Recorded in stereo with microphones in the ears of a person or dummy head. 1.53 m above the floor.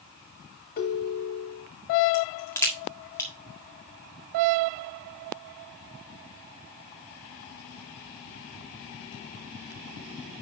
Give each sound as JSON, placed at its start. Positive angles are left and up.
{"t": 0.8, "sound": "a ringtone", "side_deg": 50, "distance_m": 1.8}
{"t": 2.1, "sound": "a crack", "side_deg": 15, "distance_m": 1.7}